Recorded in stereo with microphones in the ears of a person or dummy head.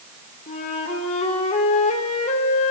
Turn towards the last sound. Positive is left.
turn(degrees=40)  # may be behind; listen again after turning